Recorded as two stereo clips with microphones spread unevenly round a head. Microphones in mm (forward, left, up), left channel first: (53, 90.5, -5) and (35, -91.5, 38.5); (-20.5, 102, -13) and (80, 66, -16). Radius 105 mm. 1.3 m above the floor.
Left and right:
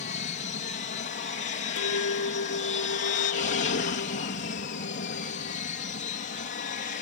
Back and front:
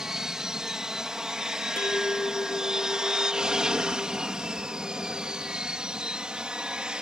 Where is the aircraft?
65° left; by 7.0 s 60° left.